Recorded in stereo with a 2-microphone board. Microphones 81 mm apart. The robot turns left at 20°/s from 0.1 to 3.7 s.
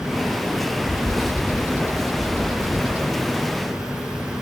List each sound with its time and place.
0.8 s a bird: 25° right (ahead or behind); by 3.3 s 15° right (ahead or behind)